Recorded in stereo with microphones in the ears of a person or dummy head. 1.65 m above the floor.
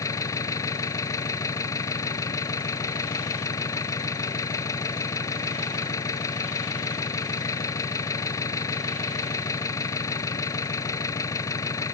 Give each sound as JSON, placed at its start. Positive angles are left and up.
{"t": 0.0, "sound": "an engine running", "side_deg": 20}